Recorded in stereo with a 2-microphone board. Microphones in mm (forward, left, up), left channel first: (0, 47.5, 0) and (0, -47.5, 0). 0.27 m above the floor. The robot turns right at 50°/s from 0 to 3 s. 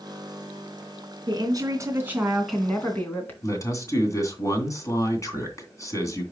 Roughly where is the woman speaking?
Ahead right.